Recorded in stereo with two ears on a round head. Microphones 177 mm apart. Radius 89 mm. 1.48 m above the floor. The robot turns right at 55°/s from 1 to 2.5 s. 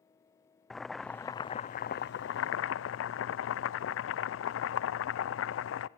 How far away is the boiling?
About 0.6 m.